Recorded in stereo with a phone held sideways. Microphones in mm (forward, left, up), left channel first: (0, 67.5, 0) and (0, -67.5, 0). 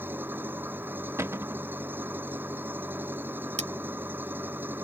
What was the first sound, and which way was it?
An engine running, 15° right (ahead or behind).